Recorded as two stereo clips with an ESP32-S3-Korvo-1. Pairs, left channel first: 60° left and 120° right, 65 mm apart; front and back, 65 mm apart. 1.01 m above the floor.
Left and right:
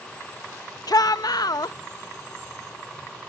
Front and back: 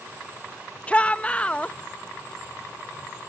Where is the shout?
70° left.